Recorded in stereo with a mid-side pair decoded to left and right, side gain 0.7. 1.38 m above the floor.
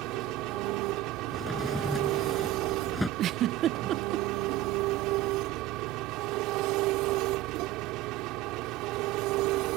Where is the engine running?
65° right.